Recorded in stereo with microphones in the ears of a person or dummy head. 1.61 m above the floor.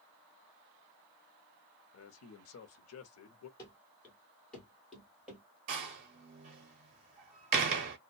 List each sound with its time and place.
1.9 s a man speaking: 80° left, 0.6 m
3.6 s running footsteps: 20° left (ahead or behind), 1.7 m; by 5.4 s centre (ahead or behind), 1.9 m
5.7 s a door slam: 35° right (ahead or behind), 0.5 m